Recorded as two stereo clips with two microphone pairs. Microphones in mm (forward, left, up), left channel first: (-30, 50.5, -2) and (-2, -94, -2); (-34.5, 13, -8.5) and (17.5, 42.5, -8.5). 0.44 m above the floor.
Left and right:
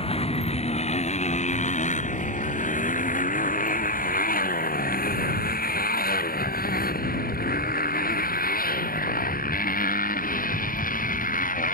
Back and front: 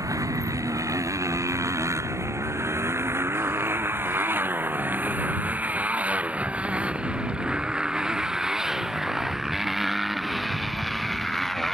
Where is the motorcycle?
55° left; by 11.7 s 125° left.